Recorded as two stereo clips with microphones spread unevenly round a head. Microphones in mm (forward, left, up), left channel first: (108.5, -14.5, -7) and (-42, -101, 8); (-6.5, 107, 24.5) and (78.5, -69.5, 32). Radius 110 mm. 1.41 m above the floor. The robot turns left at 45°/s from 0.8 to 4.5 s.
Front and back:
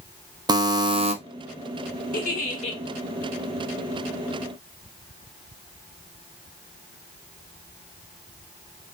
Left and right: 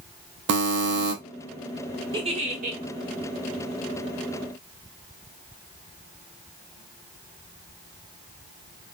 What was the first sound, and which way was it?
A buzzer, 80° right.